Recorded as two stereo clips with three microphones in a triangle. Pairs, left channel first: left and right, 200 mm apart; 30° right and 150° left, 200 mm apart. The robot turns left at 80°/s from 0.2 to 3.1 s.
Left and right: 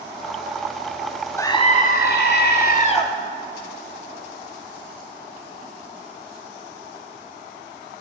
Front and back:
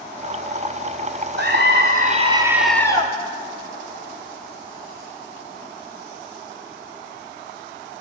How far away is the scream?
About 2 m.